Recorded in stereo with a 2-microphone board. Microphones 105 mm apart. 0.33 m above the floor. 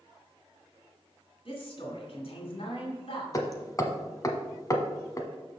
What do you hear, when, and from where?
1.4 s a man speaking: 65° left (ahead or behind), 2.5 m
3.3 s hammering: 35° left (ahead or behind), 0.9 m